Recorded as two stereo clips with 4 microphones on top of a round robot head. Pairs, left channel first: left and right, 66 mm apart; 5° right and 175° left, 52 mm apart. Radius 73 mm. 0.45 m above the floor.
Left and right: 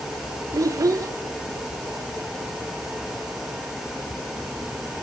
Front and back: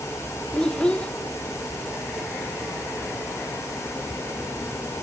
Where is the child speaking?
75° right, 0.8 m.